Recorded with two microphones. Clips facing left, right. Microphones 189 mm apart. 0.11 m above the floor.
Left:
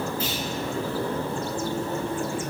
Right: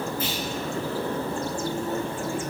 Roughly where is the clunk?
Right.